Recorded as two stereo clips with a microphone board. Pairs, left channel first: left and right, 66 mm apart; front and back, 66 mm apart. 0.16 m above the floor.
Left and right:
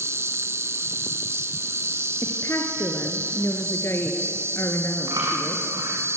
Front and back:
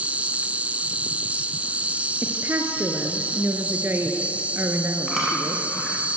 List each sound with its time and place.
0.0 s an insect: 115° right, 0.7 m
2.2 s a woman speaking: 130° left, 2 m
5.1 s chewing: 90° right, 6 m